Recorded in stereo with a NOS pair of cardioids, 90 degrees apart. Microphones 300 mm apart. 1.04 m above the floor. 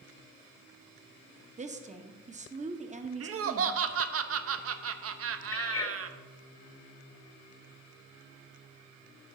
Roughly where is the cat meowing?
Ahead left.